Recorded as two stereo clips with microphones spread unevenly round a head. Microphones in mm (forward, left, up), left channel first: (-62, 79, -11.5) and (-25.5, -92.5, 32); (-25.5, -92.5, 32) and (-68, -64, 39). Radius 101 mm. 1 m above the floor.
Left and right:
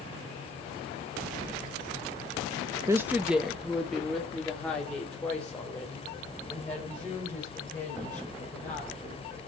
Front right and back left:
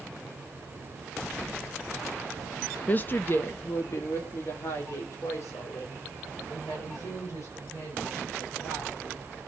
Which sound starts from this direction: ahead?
A woman speaking, at 2.9 s.